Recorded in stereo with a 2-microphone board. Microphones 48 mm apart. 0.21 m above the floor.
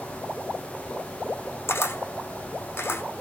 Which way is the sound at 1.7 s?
55° left (ahead or behind).